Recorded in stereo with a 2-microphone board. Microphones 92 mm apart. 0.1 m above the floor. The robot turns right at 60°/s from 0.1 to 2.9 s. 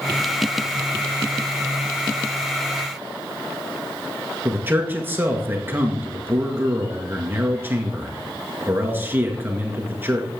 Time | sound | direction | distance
4.5 | a man speaking | 20° right (ahead or behind) | 1.5 m